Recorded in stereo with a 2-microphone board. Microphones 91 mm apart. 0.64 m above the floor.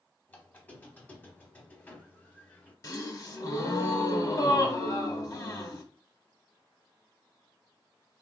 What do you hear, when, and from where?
0.3 s a squeak: 20° left (ahead or behind), 0.7 m
2.8 s a gasp: 40° left (ahead or behind), 0.8 m